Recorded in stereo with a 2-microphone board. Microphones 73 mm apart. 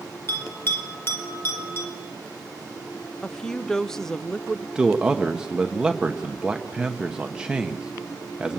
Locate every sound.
0.3 s a bell: 35° left (ahead or behind), 4.5 m
3.2 s a woman speaking: 5° left (ahead or behind), 0.7 m
4.8 s a man speaking: 10° right (ahead or behind), 1.1 m